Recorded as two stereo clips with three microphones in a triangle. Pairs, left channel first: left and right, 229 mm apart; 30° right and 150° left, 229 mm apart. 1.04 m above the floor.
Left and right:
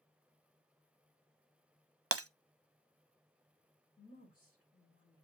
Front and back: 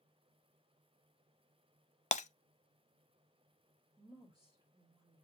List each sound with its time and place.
2.1 s breaking glass: 90° right, 0.5 m
4.0 s a woman speaking: 75° left, 5.5 m